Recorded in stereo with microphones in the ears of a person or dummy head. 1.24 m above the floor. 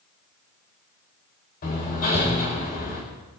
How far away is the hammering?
About 3.5 m.